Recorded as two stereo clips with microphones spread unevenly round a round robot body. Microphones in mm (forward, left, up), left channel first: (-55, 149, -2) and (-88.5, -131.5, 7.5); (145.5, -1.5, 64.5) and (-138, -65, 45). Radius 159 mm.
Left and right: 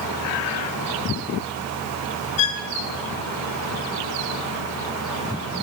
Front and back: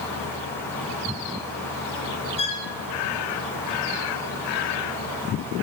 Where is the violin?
85° left, 5 m.